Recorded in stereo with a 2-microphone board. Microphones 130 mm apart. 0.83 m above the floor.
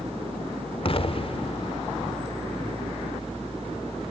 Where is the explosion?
45° left (ahead or behind), 1.0 m.